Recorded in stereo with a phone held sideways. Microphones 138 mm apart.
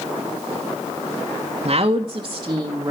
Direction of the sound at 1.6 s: 50° right (ahead or behind).